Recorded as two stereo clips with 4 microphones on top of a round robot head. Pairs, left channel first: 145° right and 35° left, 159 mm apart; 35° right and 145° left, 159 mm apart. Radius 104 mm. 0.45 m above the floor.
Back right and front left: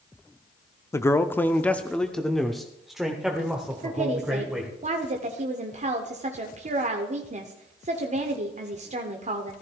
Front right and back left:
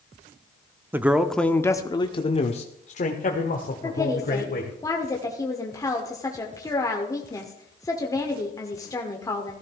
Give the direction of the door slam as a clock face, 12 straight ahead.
I don't hear a door slam.